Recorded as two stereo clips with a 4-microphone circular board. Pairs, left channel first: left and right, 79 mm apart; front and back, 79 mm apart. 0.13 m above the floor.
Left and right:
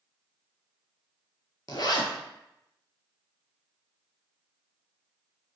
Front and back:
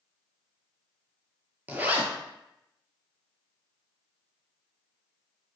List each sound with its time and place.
1.7 s a zipper: 115° left, 0.5 m